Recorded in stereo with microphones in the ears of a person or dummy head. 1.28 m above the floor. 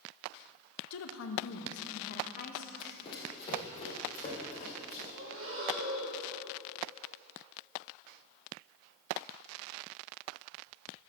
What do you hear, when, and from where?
0.9 s a woman speaking: 80° left, 0.9 m; by 2.7 s 45° left (ahead or behind), 1.4 m
2.8 s running footsteps: 25° left (ahead or behind), 3 m; by 5.0 s 30° left (ahead or behind), 5.5 m
5.1 s breathing: 70° right (ahead or behind), 1.9 m